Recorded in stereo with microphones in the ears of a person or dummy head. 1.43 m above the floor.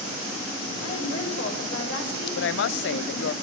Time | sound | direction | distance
0.8 | a woman speaking | 85° left | 7 m
2.4 | a woman speaking | 75° left (ahead or behind) | 0.7 m